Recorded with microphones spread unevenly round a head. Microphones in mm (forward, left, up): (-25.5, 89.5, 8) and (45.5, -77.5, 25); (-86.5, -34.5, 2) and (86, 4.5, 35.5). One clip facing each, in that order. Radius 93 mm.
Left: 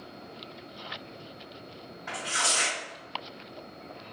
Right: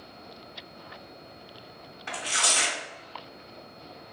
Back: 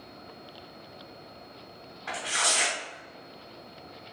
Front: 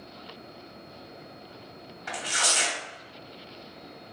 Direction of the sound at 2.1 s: 35° right.